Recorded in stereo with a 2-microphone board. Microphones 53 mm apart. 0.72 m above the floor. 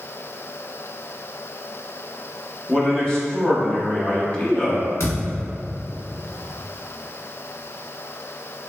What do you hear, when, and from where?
2.7 s a man speaking: 20° left (ahead or behind), 0.7 m
5.0 s a thud: 65° left (ahead or behind), 1.3 m